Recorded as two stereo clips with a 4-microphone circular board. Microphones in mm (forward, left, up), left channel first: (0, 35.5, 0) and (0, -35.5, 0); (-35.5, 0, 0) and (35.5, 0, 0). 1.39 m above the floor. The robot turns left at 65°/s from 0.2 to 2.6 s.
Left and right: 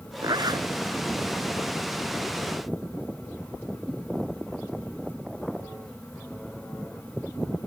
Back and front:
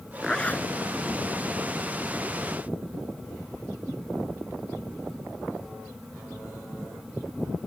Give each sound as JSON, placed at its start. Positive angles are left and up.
{"t": 0.2, "sound": "a zipper", "azimuth_deg": -90}